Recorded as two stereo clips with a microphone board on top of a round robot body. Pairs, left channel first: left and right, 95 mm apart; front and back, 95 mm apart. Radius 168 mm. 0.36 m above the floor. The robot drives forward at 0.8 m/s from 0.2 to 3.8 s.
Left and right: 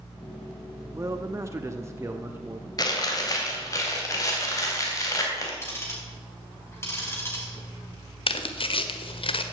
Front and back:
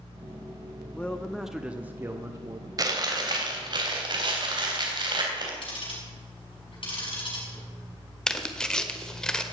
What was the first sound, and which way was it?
A man speaking, 60° right.